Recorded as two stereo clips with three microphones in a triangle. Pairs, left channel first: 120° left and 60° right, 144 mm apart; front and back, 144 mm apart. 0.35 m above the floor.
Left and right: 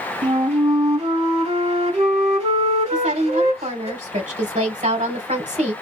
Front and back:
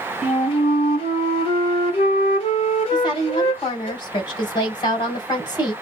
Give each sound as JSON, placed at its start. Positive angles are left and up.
{"t": 0.2, "sound": "a flute", "azimuth_deg": -35, "distance_m": 1.3}
{"t": 2.9, "sound": "a woman speaking", "azimuth_deg": -50, "distance_m": 2.5}